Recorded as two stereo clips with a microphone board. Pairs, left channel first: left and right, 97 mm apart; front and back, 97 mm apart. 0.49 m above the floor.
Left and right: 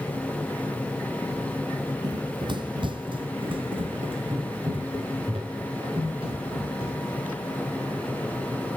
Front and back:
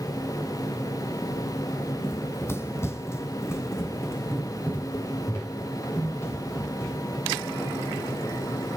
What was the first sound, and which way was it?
Running footsteps, 55° right.